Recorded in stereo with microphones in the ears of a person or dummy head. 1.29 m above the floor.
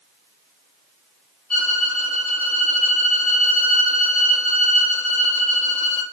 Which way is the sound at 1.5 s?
5° left (ahead or behind).